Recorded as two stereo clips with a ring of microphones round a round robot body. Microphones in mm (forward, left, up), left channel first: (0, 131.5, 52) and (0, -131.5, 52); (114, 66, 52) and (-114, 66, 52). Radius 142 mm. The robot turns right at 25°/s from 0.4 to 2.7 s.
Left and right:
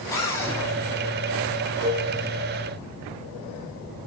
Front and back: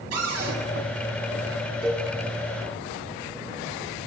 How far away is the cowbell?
About 3 m.